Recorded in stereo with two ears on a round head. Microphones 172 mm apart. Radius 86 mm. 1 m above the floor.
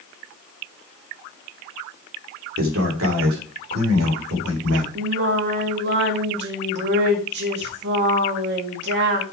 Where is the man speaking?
75° right (ahead or behind), 2.5 m; by 4.8 s 80° right, 4 m.